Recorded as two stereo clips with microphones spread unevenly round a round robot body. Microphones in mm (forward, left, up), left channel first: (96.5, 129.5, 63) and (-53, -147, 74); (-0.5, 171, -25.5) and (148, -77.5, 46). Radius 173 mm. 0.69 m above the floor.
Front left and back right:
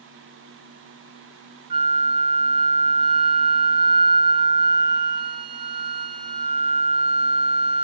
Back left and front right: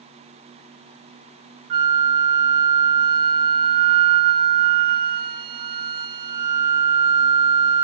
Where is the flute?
40° right, 0.6 m.